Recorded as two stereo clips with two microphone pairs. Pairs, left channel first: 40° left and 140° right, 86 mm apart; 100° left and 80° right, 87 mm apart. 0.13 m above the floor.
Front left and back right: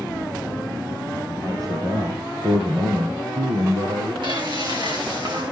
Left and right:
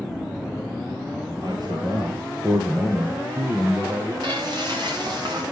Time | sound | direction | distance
1.4 | a man speaking | 105° right | 2.5 m
4.2 | frying | 115° right | 7 m